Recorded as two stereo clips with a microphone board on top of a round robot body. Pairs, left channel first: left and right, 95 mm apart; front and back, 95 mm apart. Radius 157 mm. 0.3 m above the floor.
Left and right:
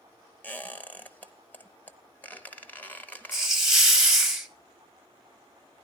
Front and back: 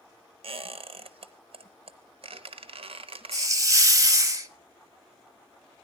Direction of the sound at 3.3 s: 170° right.